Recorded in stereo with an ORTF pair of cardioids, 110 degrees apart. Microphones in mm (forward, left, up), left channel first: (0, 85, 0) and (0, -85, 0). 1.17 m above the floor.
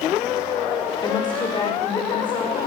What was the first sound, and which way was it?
A woman speaking, 25° left.